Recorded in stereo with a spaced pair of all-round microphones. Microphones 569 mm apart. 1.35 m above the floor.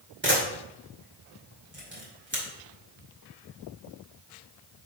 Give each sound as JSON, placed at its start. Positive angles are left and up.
{"t": 0.2, "sound": "a camera shutter", "side_deg": -20, "distance_m": 2.5}